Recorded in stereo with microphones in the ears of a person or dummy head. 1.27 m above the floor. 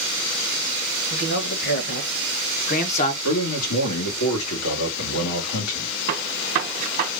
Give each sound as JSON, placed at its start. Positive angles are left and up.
{"t": 1.1, "sound": "a man speaking", "side_deg": 65, "distance_m": 2.0}
{"t": 3.2, "sound": "a man speaking", "side_deg": 90, "distance_m": 1.7}
{"t": 6.1, "sound": "a gunshot", "side_deg": -50, "distance_m": 1.0}